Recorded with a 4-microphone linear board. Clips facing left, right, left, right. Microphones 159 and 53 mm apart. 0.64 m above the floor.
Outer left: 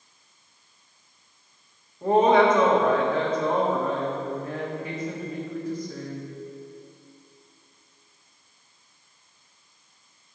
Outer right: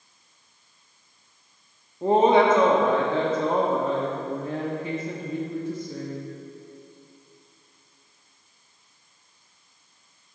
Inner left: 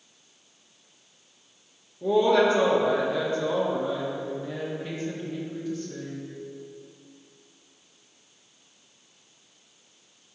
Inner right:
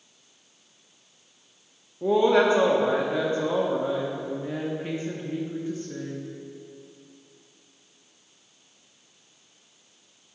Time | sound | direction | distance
2.0 | a woman speaking | 25° right (ahead or behind) | 1.1 m